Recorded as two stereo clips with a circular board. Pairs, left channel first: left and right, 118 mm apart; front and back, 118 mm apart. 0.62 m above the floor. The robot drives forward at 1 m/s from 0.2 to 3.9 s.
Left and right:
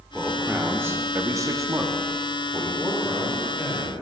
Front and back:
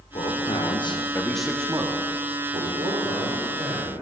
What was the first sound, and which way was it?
A man speaking, 15° right.